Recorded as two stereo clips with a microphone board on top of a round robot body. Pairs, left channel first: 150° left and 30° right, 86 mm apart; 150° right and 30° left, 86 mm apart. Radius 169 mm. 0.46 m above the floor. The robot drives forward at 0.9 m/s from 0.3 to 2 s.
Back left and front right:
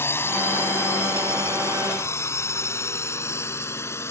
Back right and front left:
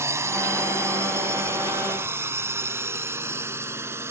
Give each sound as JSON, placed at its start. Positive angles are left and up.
{"t": 0.0, "sound": "a drone", "azimuth_deg": 90}